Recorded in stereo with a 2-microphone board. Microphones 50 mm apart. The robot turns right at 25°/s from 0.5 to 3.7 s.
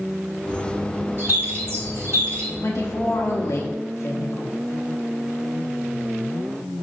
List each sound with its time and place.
1.2 s a bird: 125° right, 1.5 m; by 2.5 s 90° right, 1.5 m
2.6 s a woman speaking: 60° left (ahead or behind), 0.5 m; by 4.5 s 75° left (ahead or behind), 0.5 m